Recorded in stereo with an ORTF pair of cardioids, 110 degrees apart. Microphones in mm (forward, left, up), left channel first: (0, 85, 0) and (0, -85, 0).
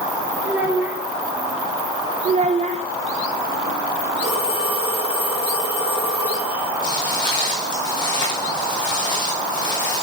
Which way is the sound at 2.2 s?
45° right.